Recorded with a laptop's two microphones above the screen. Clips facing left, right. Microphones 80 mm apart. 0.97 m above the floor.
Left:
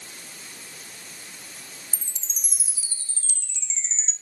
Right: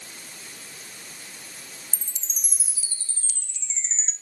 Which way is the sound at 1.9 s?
40° right (ahead or behind).